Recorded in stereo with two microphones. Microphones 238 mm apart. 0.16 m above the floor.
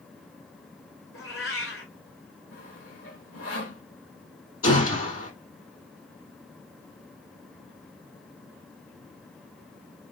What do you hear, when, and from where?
1.1 s a cat meowing: 65° left (ahead or behind), 3 m
2.5 s sawing: 80° left, 2.5 m
4.6 s a gunshot: 70° left (ahead or behind), 3.5 m